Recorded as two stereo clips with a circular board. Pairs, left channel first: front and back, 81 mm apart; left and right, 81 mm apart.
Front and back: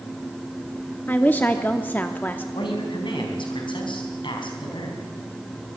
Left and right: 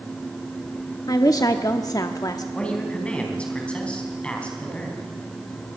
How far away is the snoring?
No snoring in this recording.